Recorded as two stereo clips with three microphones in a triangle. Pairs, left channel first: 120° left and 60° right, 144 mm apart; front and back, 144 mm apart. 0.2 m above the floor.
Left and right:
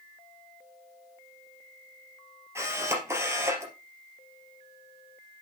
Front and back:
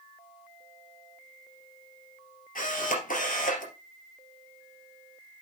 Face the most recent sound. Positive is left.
turn(degrees=10)